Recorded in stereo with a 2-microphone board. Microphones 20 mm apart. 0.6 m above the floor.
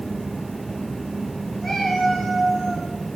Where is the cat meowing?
10° left (ahead or behind), 3 m.